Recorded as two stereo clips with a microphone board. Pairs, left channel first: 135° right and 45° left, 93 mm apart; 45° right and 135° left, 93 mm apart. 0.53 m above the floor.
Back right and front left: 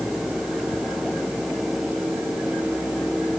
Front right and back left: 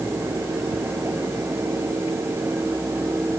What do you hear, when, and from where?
Only background noise.